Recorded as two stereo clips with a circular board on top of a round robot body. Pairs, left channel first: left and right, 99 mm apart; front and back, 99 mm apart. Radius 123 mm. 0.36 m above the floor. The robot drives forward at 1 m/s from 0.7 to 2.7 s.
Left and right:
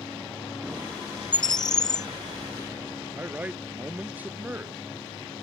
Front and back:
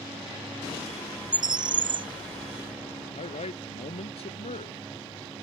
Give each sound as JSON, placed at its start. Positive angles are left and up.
{"t": 1.3, "sound": "a bird", "azimuth_deg": 135}
{"t": 3.1, "sound": "a man speaking", "azimuth_deg": -15}